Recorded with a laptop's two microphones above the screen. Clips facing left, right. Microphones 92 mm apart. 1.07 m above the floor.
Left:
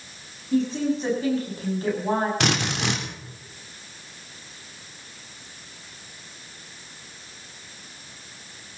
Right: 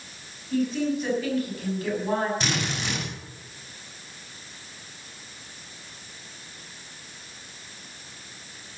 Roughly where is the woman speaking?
Left.